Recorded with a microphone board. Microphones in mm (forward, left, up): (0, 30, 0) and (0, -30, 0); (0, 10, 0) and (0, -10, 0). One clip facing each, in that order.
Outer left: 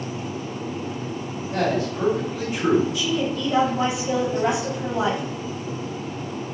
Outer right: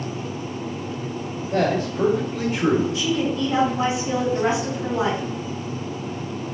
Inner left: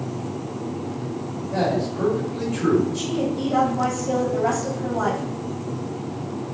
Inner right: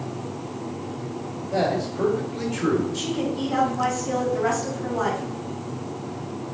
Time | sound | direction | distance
1.5 | a man speaking | 30° right (ahead or behind) | 1.7 m
2.9 | a woman speaking | 30° right (ahead or behind) | 1.9 m